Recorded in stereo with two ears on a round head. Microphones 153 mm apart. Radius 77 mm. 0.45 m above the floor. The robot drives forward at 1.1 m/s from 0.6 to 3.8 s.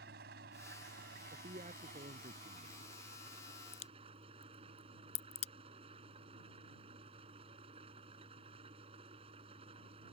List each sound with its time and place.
0.0 s an engine running: 65° right (ahead or behind); by 10.1 s 35° right (ahead or behind)
1.3 s a man speaking: 40° right (ahead or behind); by 2.7 s 45° right (ahead or behind)
3.7 s a crack: 45° left (ahead or behind); by 5.5 s 40° left (ahead or behind)